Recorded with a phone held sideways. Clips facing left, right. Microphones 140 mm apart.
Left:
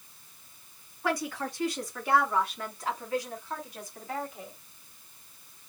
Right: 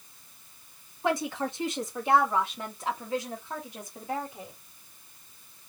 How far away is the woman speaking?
About 1.2 m.